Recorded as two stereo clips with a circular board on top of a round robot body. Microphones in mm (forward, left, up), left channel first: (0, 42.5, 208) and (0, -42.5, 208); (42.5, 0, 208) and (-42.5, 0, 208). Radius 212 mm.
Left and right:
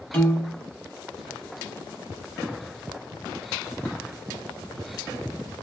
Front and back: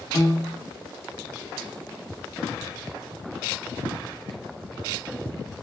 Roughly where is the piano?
Ahead.